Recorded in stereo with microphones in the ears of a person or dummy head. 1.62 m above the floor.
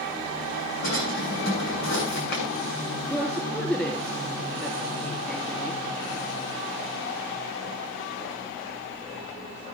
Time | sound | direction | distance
0.8 | a drawer | 60° left (ahead or behind) | 7 m
3.1 | a woman speaking | 10° left (ahead or behind) | 3.5 m